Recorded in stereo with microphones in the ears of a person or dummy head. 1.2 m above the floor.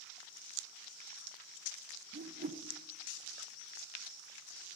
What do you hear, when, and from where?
2.1 s a whoosh: 45° right (ahead or behind), 1.3 m